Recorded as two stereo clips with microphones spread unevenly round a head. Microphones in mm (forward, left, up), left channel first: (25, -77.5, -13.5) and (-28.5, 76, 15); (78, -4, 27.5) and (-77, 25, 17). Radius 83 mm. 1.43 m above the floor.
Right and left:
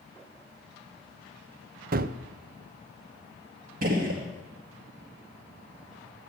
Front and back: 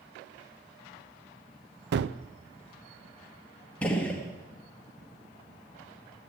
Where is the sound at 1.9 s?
150° left, 0.5 m.